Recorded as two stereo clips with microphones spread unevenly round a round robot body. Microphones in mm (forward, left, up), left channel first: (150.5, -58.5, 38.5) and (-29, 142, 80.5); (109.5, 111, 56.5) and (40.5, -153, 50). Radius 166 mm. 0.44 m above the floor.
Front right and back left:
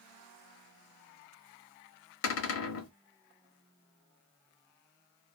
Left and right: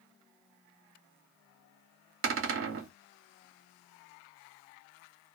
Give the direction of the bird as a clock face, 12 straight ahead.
No bird in this recording.